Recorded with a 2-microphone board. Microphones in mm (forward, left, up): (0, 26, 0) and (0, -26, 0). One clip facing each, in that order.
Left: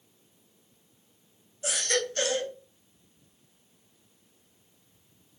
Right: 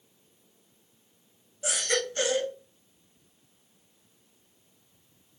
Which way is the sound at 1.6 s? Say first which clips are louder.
Even; 20° right (ahead or behind).